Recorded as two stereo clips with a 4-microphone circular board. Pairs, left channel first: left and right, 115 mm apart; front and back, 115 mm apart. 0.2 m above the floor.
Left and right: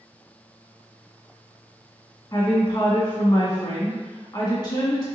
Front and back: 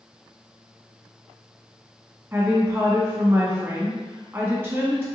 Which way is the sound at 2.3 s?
120° left.